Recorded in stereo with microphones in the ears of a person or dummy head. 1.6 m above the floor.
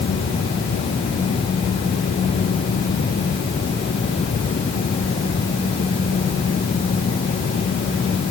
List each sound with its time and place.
Only background noise.